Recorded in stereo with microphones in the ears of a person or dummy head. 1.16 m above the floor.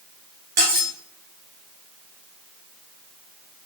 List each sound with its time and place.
0.6 s cutlery clinking: 45° right (ahead or behind), 0.7 m